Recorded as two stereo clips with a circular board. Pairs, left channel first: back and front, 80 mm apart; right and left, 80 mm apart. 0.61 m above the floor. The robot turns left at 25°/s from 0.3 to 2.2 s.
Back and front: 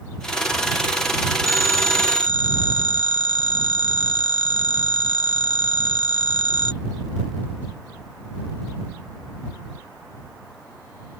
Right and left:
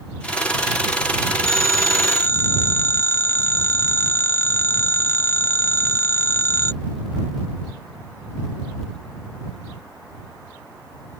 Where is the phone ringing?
130° right; by 6.7 s 150° right.